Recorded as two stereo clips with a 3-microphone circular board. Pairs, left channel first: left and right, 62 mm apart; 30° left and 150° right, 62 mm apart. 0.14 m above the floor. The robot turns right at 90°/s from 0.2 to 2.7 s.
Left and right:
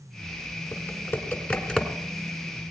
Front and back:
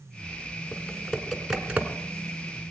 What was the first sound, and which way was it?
Typing on a keyboard, 70° left.